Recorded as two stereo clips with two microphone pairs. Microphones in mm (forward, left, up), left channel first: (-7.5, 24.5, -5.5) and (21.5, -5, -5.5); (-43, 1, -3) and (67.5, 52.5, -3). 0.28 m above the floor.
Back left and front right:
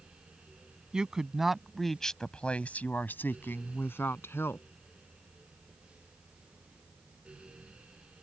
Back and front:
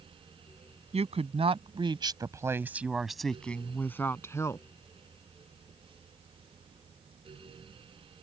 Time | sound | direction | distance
0.9 | a woman speaking | 20° left | ?